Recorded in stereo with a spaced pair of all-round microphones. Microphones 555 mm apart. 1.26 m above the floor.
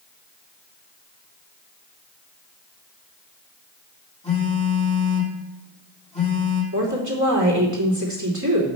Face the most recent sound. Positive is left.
turn(degrees=-30)  # may be behind; listen again after turning